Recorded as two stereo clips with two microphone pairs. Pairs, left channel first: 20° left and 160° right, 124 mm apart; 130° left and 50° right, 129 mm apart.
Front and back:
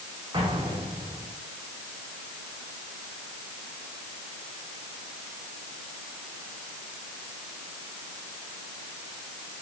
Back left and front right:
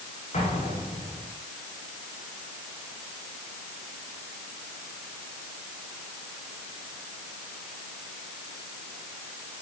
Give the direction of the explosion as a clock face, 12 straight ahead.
7 o'clock.